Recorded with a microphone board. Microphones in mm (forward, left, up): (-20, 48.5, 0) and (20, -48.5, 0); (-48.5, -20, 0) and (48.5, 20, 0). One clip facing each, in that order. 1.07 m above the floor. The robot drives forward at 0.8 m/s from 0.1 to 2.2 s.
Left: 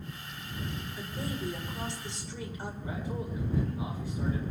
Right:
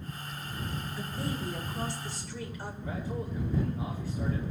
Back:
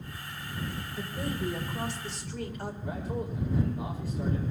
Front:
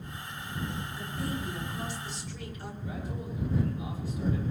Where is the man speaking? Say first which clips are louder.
Right 2 dB, back 3 dB; 175° right, 5 m.